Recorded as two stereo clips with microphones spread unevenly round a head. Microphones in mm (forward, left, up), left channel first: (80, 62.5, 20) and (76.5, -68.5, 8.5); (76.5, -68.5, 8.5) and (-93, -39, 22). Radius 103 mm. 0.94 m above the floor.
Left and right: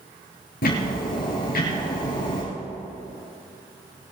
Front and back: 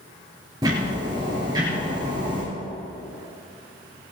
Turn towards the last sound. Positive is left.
turn(degrees=100)